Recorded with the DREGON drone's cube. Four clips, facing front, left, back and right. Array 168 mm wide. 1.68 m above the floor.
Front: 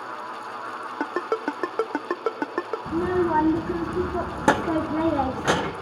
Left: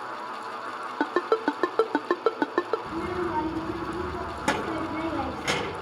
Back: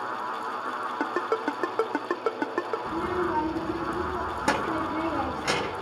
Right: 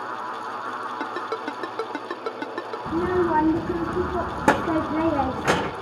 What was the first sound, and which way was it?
A ringtone, 85° left.